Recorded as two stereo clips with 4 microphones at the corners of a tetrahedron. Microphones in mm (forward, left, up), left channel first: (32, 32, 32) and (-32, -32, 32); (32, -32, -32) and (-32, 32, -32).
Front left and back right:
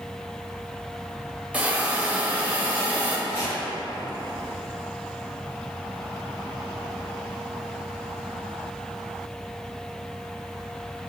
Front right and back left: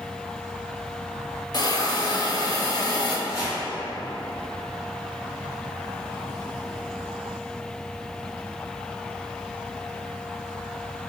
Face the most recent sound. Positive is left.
turn(degrees=0)